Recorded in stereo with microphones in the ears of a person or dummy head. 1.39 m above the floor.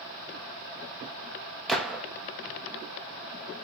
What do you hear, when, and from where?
1.7 s a gunshot: centre (ahead or behind), 1.0 m